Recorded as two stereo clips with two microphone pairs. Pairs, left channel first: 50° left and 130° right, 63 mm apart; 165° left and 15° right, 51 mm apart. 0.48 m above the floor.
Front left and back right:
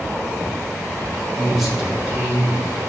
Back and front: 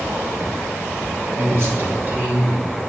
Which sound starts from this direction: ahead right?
A man speaking, at 1.4 s.